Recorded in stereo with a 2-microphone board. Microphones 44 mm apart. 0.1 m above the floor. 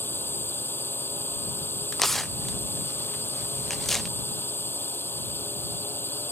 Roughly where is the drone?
Left.